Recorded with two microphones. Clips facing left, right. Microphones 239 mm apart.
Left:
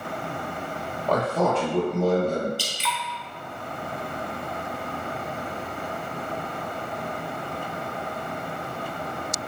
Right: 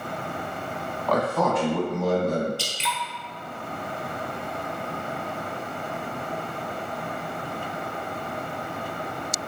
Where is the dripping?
25° right (ahead or behind), 0.8 m.